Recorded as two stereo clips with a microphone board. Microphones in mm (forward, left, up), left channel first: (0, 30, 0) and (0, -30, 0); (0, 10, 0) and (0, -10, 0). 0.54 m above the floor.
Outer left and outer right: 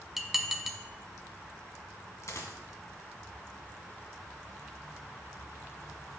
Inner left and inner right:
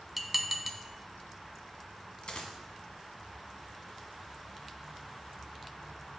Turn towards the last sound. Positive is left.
turn(degrees=55)  # may be behind; listen again after turning